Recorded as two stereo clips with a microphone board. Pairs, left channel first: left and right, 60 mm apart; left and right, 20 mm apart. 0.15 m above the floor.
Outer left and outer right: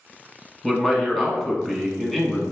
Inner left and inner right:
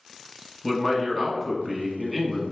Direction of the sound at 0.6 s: 5° left (ahead or behind).